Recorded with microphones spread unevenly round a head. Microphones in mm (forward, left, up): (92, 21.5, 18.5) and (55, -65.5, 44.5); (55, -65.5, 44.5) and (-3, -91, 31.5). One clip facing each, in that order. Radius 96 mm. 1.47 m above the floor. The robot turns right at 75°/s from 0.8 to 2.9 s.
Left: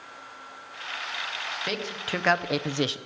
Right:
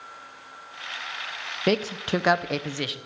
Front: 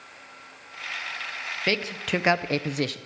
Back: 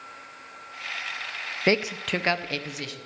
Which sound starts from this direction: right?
A man speaking, at 1.7 s.